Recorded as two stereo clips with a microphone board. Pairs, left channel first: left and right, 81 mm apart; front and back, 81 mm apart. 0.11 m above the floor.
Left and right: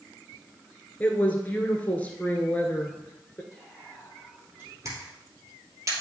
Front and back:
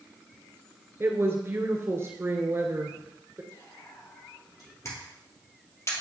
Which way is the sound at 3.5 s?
20° right.